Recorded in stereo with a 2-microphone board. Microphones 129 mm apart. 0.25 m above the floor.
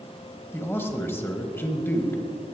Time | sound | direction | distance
0.5 | a man speaking | 20° left (ahead or behind) | 1.1 m